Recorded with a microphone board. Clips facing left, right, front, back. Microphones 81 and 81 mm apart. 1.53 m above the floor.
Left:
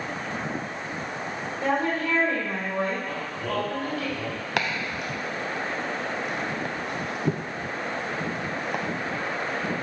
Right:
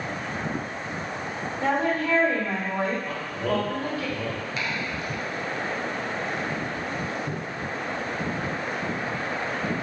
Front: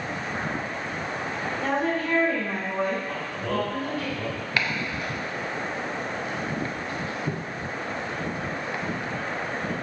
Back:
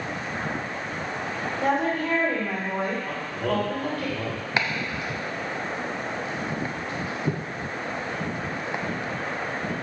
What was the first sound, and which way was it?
A woman speaking, 155° right.